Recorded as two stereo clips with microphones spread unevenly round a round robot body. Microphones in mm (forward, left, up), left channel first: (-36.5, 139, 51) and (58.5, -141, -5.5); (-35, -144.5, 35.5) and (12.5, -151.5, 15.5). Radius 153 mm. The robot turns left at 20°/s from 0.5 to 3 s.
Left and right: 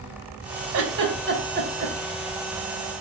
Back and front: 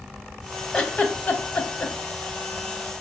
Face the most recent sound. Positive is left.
turn(degrees=-160)